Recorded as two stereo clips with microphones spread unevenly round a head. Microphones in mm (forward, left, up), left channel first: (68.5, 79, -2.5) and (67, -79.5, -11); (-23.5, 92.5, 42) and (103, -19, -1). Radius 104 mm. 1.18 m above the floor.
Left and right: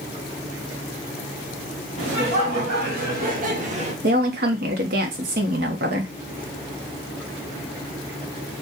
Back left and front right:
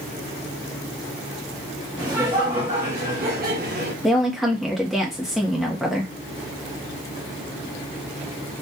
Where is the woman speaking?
125° right, 0.7 m.